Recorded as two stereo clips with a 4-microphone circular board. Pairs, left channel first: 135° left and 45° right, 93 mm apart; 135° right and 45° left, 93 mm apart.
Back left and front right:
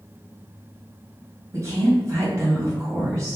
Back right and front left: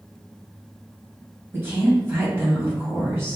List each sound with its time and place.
1.5 s a woman speaking: 5° right, 1.9 m